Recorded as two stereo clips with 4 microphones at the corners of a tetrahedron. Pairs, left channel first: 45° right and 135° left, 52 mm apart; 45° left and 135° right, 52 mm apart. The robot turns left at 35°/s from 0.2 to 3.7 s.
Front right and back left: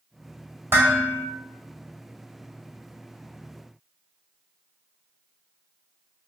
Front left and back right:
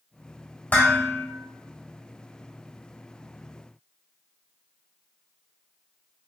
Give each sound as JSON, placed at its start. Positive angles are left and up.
{"t": 0.7, "sound": "dishes clattering", "azimuth_deg": 100, "distance_m": 1.4}